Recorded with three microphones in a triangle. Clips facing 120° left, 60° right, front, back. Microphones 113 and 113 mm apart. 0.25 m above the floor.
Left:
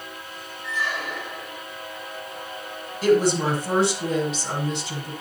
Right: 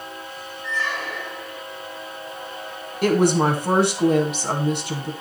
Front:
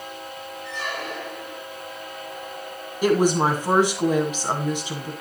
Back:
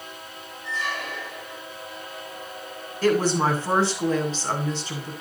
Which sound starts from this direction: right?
A woman speaking, at 3.0 s.